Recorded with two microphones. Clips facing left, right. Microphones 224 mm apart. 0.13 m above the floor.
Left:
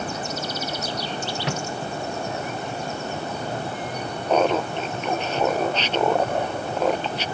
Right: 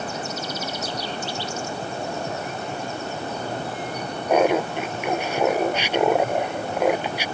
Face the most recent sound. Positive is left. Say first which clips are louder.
# right 2 dB
turn(degrees=-10)  # may be behind; listen again after turning